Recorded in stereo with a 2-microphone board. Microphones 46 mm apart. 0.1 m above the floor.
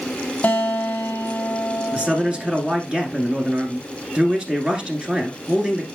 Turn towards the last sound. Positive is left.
turn(degrees=-20)  # may be behind; listen again after turning